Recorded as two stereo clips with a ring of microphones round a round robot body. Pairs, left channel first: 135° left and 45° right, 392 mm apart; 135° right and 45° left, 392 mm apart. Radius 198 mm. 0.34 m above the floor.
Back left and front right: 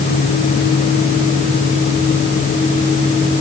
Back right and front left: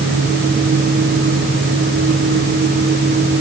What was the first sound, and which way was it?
Only background noise.